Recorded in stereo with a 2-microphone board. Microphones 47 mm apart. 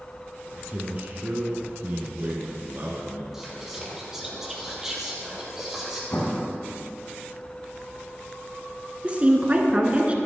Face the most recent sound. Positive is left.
turn(degrees=-30)  # may be behind; listen again after turning